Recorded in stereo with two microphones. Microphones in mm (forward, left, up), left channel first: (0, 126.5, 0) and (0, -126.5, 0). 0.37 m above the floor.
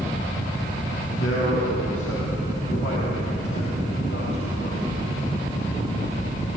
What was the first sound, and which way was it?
A man speaking, 65° left (ahead or behind).